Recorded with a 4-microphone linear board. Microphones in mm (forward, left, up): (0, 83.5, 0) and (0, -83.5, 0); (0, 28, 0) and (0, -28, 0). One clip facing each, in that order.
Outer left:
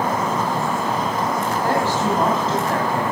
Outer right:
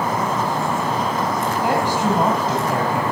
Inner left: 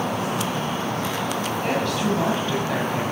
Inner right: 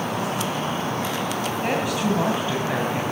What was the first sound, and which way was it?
A woman speaking, 15° right (ahead or behind).